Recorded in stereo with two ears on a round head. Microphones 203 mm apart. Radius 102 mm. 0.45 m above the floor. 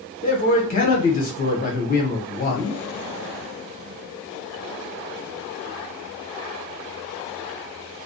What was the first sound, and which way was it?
A man speaking, 40° left (ahead or behind).